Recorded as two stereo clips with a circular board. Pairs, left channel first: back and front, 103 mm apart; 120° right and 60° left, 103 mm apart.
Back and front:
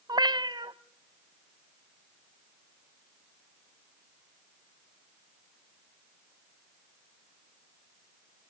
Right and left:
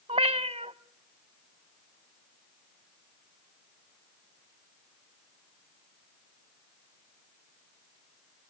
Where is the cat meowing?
45° left, 0.8 m.